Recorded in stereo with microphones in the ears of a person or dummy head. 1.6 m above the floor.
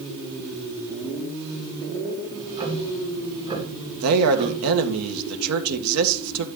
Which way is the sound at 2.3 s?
25° right (ahead or behind).